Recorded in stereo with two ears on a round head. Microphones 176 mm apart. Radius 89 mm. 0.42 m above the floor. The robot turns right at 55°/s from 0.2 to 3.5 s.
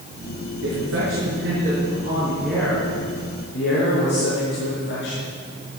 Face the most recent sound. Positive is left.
turn(degrees=55)